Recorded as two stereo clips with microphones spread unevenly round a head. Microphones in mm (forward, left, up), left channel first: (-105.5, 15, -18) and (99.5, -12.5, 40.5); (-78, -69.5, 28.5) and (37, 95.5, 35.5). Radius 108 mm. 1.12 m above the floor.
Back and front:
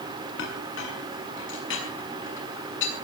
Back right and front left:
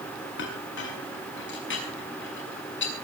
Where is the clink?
155° right, 7 m.